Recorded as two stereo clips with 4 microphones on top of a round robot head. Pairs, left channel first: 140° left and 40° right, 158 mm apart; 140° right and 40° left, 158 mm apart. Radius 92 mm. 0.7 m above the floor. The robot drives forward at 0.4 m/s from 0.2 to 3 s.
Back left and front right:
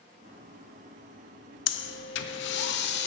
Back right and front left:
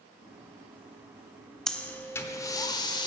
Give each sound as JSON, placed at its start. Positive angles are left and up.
{"t": 1.7, "sound": "breathing", "azimuth_deg": 135, "distance_m": 0.6}